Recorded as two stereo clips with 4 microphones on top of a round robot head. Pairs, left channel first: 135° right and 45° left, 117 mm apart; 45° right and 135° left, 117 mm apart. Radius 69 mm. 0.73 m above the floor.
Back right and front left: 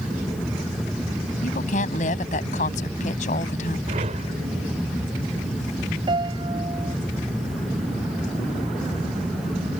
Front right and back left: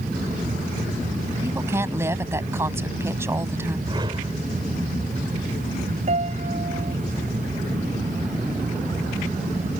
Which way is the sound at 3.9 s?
80° left.